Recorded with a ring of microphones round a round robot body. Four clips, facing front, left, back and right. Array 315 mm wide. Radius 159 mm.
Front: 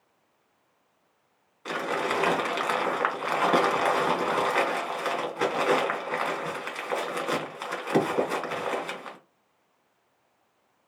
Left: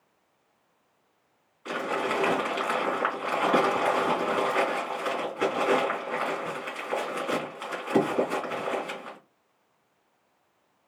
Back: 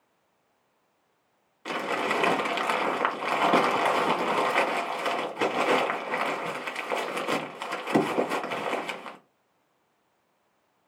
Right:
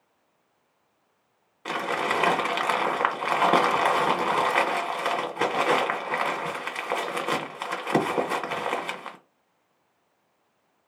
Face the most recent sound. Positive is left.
turn(degrees=-100)